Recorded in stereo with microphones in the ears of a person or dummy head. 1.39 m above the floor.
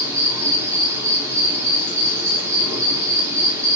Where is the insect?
25° right (ahead or behind), 8 m.